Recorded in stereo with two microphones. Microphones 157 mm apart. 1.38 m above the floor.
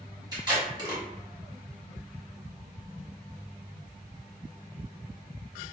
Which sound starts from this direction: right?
Tape being pulled, at 0.3 s.